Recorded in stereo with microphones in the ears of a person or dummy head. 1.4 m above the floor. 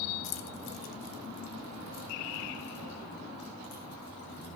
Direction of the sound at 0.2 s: 55° left (ahead or behind).